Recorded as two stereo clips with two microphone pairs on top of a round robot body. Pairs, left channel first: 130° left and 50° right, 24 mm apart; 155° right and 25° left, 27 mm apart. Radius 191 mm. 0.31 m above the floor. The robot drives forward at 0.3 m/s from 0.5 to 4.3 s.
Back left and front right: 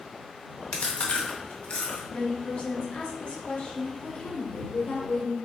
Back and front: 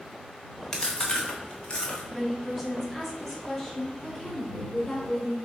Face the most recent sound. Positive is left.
turn(degrees=135)